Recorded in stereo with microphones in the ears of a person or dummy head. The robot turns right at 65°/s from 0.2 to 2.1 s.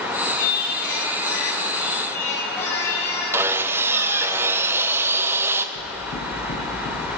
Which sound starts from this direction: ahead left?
Singing, at 0.4 s.